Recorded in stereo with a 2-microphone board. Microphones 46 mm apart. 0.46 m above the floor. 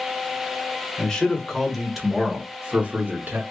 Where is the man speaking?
15° left (ahead or behind), 1.6 m; by 3.4 s 40° right (ahead or behind), 1.1 m.